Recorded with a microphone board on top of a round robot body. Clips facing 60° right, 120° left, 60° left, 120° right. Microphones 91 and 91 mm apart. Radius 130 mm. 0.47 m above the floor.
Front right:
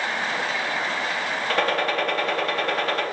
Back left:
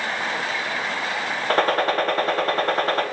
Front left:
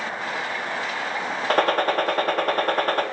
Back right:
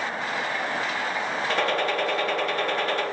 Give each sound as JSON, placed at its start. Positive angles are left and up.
{"t": 1.5, "sound": "a gunshot", "azimuth_deg": 80, "distance_m": 0.8}